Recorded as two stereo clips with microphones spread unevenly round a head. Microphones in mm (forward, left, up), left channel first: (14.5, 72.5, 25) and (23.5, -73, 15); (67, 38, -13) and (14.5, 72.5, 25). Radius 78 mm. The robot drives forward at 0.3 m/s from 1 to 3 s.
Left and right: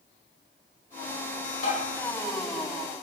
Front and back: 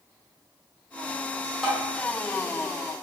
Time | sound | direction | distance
1.6 | tapping | 80° left | 1.5 m